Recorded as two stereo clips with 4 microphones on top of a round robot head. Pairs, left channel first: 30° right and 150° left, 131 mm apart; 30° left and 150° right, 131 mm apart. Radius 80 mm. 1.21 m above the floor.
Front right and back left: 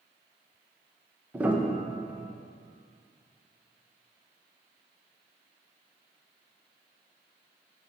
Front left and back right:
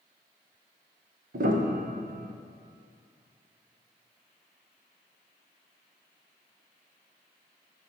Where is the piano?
135° right, 0.9 m.